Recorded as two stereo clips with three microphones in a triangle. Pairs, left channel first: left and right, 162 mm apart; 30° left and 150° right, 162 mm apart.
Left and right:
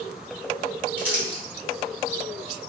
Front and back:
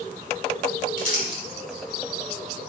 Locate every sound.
1.0 s crumpling: 10° right, 1.3 m